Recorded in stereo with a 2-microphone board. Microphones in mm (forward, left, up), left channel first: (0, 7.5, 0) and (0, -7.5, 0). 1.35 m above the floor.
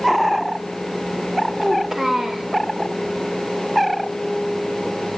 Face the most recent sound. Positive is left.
turn(degrees=-35)  # may be behind; listen again after turning